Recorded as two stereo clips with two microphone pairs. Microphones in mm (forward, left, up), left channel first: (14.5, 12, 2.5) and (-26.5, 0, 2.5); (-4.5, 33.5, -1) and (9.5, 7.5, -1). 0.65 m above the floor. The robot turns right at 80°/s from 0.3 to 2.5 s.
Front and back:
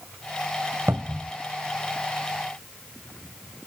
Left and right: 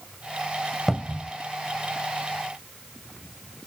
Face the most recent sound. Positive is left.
turn(degrees=-20)